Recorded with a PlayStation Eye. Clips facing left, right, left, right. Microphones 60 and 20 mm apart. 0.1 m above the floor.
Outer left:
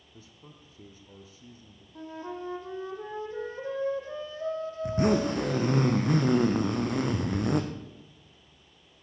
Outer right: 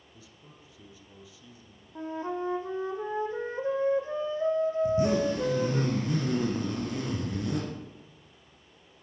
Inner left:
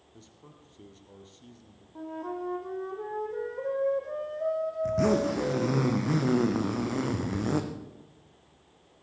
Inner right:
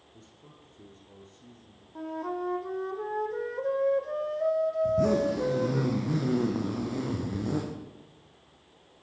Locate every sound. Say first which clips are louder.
0.1 s a man speaking: outer left 3 dB, inner left 2 dB; 40° left (ahead or behind), 3 m
1.9 s a flute: outer right 5 dB, inner right 2 dB; 30° right (ahead or behind), 1.8 m
4.8 s a zipper: outer left 4 dB, inner left 2 dB; 60° left (ahead or behind), 2 m